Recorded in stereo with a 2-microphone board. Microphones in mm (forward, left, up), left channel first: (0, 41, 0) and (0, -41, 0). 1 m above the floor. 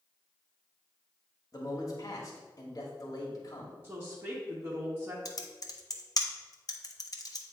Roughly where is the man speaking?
Left.